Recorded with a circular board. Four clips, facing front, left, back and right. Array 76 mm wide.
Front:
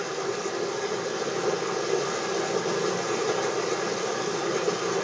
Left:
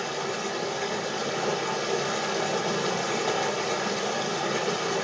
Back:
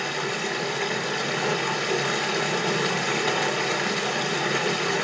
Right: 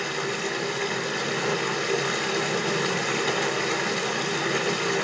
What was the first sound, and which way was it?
Running water, 140° right.